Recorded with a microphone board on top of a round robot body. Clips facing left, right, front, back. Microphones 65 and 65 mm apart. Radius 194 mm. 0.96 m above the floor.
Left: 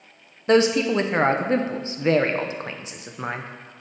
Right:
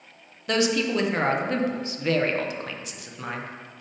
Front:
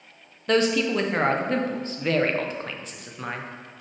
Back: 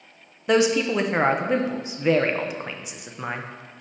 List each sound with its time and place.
0.5 s a man speaking: 115° left, 0.9 m